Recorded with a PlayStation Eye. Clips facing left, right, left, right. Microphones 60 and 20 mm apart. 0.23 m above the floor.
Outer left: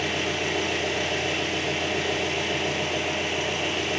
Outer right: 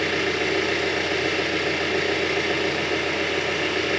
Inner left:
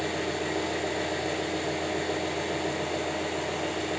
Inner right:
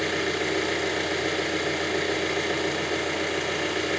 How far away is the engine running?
About 3 m.